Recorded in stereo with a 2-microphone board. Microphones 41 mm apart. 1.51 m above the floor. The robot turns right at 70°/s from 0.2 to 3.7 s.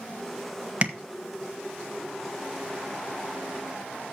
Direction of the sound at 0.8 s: 35° right (ahead or behind).